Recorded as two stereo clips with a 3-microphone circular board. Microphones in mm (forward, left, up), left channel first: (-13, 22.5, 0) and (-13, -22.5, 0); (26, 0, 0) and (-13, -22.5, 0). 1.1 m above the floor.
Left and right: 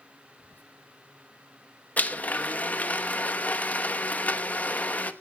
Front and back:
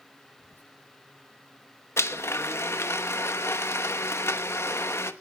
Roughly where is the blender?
Ahead left.